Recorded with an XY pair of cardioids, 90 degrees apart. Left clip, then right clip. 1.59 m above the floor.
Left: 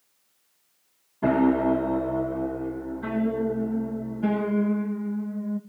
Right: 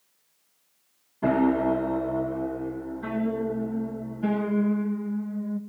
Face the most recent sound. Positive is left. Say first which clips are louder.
# left 1 dB
turn(degrees=10)